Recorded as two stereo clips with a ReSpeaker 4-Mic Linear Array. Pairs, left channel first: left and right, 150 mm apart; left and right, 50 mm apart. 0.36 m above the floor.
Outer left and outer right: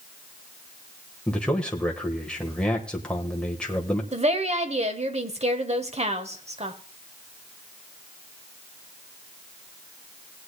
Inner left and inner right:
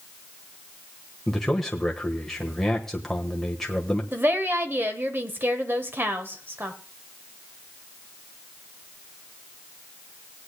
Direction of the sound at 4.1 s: 45° right (ahead or behind).